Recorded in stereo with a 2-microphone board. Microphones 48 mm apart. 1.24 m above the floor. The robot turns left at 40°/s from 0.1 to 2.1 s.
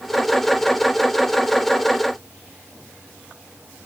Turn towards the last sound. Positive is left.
No sound to turn to.